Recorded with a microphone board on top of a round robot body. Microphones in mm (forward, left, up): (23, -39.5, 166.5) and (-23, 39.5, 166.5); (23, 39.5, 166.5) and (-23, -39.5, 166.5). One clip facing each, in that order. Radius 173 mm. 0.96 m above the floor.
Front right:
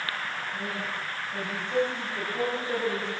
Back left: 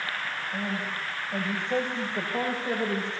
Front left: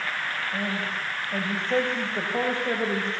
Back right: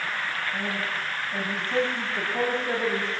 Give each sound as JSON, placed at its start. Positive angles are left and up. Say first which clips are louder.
{"t": 0.5, "sound": "a man speaking", "louder": "back left 1 dB, even", "azimuth_deg": 90, "distance_m": 8.5}